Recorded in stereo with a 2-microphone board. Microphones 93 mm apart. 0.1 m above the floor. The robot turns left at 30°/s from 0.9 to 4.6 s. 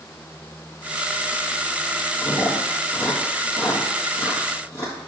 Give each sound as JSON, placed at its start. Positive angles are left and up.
{"t": 2.2, "sound": "chewing", "side_deg": 30, "distance_m": 1.8}